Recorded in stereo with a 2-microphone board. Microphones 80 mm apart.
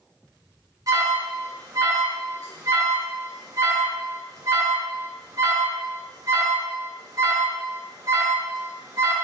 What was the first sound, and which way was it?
An alarm, 50° right (ahead or behind).